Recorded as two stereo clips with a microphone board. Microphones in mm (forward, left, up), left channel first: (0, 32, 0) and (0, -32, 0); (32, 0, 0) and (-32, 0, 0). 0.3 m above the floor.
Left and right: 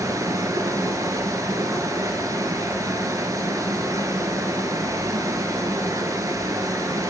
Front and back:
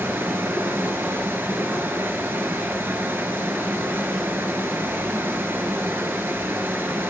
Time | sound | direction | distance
0.0 | running water | 125° right | 0.8 m